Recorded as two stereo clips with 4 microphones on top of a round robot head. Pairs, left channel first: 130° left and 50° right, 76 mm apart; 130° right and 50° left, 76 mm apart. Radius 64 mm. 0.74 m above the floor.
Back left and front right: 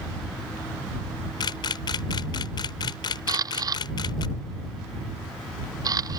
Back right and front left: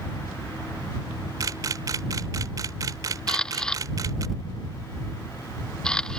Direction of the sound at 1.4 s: 100° left.